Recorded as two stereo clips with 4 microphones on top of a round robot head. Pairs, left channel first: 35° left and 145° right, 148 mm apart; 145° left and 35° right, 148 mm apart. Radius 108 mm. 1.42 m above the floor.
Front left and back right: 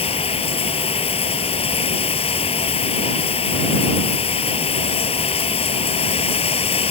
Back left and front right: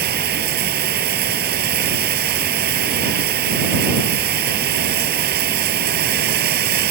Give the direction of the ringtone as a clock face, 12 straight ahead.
I don't hear a ringtone.